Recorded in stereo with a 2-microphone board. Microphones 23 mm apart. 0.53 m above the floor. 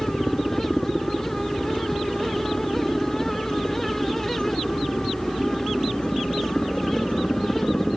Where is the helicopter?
50° left (ahead or behind).